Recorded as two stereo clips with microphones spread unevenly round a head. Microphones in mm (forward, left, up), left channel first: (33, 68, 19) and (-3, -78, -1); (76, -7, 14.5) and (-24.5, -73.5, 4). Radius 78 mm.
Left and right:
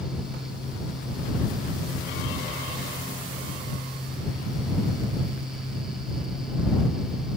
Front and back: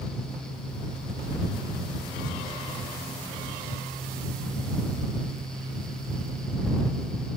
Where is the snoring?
No snoring in this recording.